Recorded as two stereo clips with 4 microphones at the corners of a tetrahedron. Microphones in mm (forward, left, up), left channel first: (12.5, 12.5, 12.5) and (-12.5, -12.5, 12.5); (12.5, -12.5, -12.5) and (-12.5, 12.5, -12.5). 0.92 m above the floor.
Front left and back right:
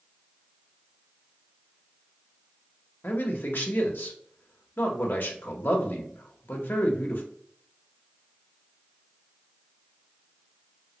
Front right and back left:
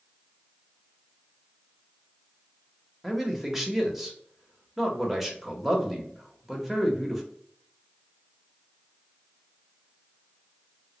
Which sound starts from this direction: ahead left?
A man speaking, at 3.0 s.